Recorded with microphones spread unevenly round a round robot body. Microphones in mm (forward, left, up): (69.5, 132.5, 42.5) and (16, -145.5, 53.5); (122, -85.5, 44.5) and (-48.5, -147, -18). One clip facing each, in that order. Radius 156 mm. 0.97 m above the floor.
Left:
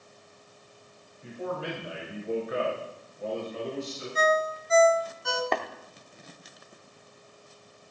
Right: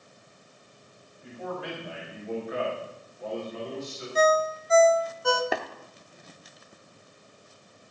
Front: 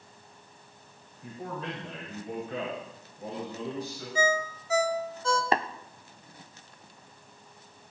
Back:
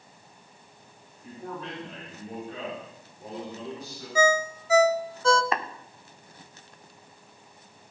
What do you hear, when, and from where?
1.2 s a man speaking: 20° left, 5 m; by 4.0 s 25° left, 6.5 m
4.2 s a ringtone: 145° right, 0.7 m
5.5 s tapping: 20° right, 0.8 m